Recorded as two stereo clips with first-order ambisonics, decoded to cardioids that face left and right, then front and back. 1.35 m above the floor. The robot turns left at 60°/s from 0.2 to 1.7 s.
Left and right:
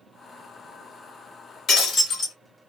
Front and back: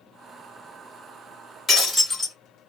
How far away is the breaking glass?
About 1.4 m.